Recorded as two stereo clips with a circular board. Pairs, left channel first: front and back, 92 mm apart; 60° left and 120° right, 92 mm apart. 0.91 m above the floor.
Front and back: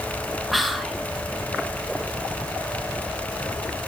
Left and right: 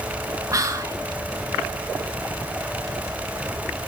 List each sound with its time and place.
0.5 s whispering: 90° right, 0.9 m